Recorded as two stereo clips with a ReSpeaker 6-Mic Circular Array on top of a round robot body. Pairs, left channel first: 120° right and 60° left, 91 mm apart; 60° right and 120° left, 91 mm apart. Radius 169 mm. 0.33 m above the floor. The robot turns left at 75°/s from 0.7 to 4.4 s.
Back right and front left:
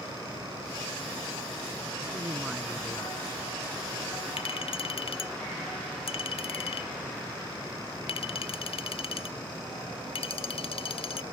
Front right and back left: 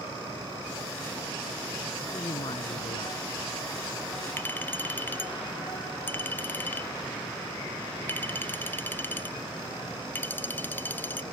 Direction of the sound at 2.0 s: 10° left.